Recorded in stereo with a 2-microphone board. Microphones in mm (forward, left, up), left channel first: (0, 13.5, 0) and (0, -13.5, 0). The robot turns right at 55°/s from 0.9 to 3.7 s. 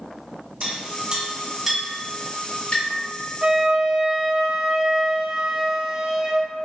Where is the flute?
35° right (ahead or behind), 0.7 m; by 6.5 s 20° right (ahead or behind), 0.7 m.